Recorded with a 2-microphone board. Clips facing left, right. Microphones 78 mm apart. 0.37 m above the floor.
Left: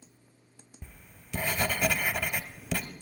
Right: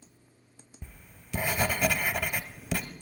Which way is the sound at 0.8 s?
10° right (ahead or behind).